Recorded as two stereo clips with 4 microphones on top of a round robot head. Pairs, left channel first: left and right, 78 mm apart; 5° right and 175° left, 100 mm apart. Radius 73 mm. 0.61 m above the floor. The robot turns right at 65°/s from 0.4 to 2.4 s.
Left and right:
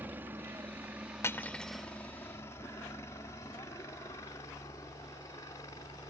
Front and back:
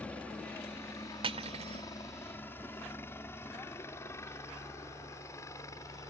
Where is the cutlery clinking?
145° left; by 1.9 s 170° right.